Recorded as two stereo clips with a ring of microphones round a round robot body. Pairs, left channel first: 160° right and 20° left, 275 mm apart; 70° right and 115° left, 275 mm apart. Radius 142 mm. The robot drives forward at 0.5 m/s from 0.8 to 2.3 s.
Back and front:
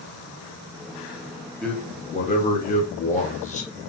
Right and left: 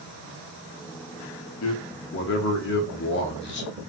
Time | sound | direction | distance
1.6 | a man speaking | 70° right | 0.8 m